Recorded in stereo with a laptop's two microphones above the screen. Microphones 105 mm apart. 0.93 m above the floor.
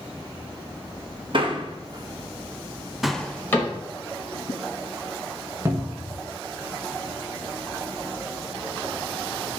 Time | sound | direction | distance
1.3 | a man speaking | 55° right (ahead or behind) | 1.3 m
3.5 | a cupboard door | 20° left (ahead or behind) | 2.5 m
5.7 | a cupboard door | 25° right (ahead or behind) | 1.0 m